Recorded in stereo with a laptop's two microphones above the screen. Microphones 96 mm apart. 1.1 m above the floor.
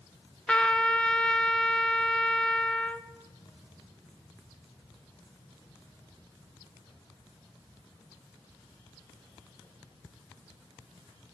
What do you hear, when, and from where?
0.5 s a trumpet: 10° left (ahead or behind), 0.5 m